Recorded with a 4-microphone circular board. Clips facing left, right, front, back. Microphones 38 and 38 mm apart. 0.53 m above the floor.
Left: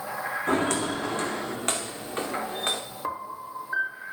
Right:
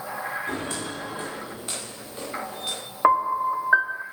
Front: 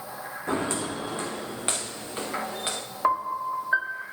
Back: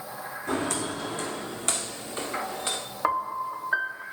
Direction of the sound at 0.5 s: 55° left.